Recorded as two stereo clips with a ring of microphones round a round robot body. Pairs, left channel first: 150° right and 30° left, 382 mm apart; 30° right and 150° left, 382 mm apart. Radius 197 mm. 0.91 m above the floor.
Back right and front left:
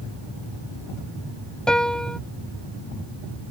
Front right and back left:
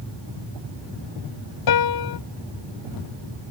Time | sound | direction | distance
1.7 | a piano | 60° right | ?